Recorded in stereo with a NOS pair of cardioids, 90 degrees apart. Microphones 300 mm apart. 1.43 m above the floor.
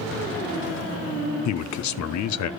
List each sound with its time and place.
1.4 s a man speaking: 70° left, 0.8 m